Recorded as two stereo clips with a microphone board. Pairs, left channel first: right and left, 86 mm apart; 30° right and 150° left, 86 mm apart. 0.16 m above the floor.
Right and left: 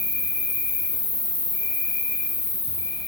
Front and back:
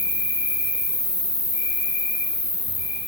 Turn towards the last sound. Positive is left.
turn(degrees=-40)